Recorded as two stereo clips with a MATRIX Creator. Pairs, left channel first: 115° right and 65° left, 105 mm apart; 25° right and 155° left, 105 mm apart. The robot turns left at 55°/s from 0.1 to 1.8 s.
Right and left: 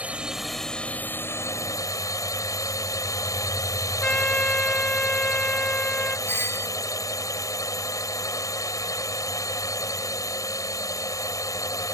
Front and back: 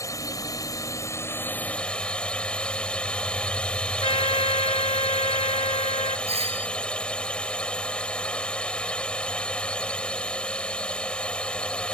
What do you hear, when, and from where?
0.0 s a drone: straight ahead; by 11.9 s 95° right
4.0 s a trumpet: 35° right
6.3 s a doorbell: 175° left